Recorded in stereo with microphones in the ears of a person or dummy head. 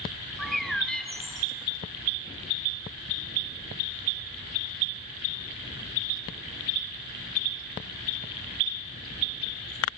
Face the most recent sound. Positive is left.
turn(degrees=5)  # may be behind; listen again after turning